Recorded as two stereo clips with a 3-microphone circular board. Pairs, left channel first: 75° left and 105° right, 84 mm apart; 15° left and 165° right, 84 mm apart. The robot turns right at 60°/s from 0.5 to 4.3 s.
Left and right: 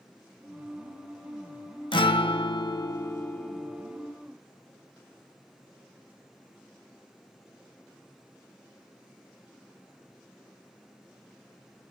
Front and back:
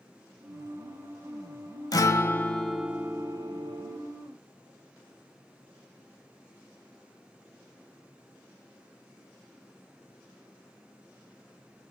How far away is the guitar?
About 0.6 m.